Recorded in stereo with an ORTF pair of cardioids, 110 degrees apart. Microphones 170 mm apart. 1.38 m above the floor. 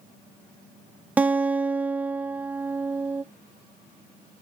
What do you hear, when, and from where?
1.2 s a guitar: 10° right, 0.5 m